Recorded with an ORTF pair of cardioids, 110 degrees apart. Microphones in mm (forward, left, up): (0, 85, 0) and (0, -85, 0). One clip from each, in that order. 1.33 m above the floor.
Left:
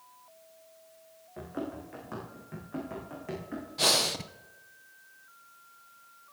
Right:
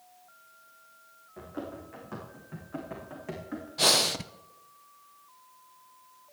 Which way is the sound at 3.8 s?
10° right.